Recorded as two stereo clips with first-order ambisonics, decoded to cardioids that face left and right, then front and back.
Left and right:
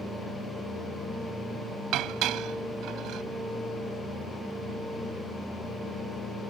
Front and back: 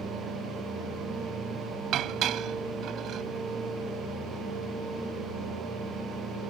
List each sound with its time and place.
1.9 s dishes clattering: 130° right